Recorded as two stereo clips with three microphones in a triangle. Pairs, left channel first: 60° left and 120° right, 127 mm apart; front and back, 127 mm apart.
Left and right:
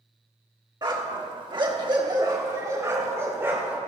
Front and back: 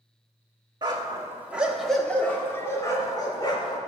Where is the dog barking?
150° right, 1.3 m; by 3.8 s 50° right, 2.5 m.